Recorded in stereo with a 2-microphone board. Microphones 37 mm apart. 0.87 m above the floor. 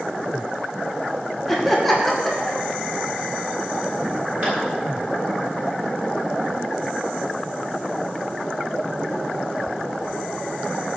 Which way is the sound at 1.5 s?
5° left (ahead or behind).